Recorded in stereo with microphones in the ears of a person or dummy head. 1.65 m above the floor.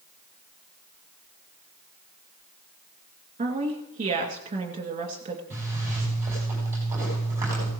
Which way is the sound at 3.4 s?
35° right (ahead or behind).